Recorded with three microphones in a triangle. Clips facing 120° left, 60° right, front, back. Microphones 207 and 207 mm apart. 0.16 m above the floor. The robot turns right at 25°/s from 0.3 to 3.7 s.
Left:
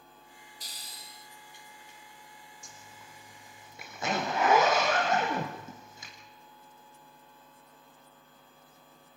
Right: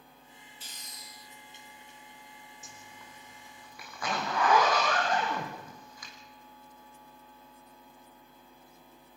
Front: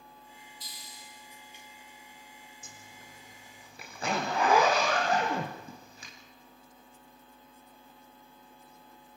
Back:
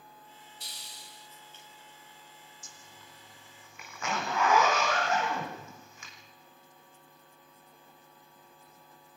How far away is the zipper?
About 4.5 m.